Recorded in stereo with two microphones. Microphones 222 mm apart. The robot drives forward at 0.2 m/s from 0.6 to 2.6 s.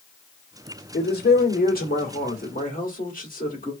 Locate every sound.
0.9 s a man speaking: 45° left (ahead or behind), 1.2 m; by 3.7 s 40° left (ahead or behind), 1.4 m